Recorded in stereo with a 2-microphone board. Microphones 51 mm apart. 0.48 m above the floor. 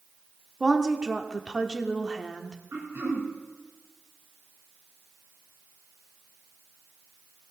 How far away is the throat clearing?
About 2.5 m.